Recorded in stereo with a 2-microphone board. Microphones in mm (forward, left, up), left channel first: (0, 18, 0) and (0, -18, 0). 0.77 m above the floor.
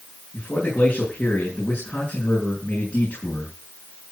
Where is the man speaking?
60° left (ahead or behind), 7 m.